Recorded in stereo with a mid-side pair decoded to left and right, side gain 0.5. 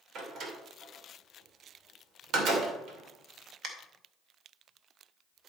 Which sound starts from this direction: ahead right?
A door slam, at 0.1 s.